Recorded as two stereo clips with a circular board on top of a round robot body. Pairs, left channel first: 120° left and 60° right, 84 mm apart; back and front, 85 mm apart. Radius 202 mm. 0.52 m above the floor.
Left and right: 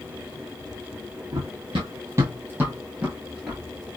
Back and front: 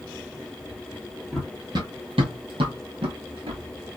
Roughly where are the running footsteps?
Right.